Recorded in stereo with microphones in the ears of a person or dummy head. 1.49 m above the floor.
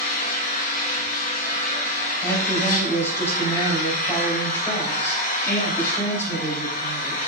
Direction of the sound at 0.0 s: 40° left (ahead or behind).